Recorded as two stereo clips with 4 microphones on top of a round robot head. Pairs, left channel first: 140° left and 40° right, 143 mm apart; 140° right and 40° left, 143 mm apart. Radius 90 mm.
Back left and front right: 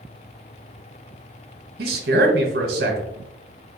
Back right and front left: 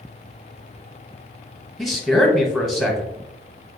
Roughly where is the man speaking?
Ahead right.